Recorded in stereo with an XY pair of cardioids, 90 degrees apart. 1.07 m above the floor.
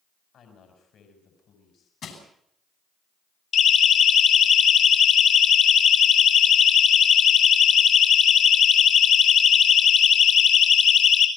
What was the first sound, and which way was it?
A woman speaking, 65° left.